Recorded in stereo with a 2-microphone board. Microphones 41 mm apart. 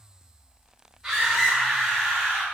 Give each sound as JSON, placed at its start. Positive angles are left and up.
{"t": 1.0, "sound": "a scream", "side_deg": 0, "distance_m": 3.5}